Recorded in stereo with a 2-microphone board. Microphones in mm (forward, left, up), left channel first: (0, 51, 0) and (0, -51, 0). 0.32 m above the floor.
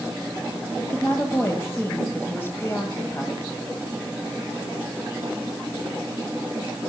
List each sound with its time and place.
0.8 s a woman speaking: 25° left (ahead or behind), 1.4 m